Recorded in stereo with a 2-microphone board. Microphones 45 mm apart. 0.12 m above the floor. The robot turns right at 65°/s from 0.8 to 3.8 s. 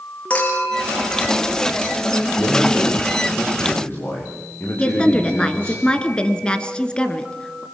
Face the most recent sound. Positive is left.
turn(degrees=20)  # may be behind; listen again after turning